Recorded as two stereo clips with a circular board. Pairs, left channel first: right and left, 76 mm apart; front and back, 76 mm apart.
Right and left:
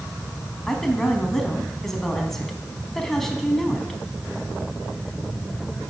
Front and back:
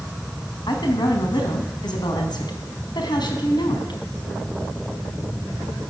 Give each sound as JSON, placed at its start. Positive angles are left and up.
{"t": 0.7, "sound": "a woman speaking", "azimuth_deg": -5, "distance_m": 4.0}